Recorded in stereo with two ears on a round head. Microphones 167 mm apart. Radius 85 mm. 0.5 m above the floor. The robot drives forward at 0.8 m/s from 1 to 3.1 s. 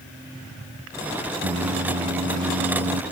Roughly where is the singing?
Right.